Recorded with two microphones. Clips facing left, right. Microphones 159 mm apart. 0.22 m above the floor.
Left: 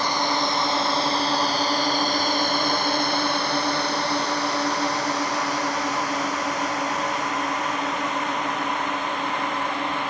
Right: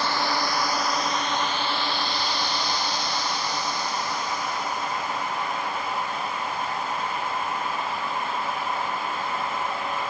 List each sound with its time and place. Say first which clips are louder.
0.0 s a drone: left 2 dB; 15° left (ahead or behind); by 10.1 s 75° left (ahead or behind)